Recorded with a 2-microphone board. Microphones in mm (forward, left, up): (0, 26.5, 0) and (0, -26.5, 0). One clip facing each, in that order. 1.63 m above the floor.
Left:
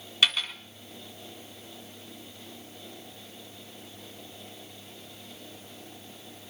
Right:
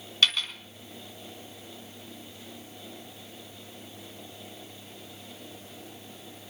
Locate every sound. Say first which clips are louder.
0.2 s a dropped coin: even; 10° left (ahead or behind), 1.7 m